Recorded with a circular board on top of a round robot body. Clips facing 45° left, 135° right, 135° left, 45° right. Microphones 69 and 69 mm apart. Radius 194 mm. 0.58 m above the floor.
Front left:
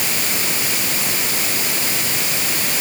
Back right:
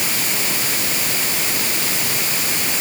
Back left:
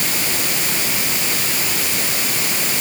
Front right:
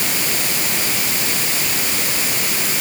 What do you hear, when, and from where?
Only background noise.